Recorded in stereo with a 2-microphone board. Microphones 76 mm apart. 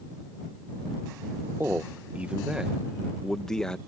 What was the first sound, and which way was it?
A man speaking, 30° right (ahead or behind).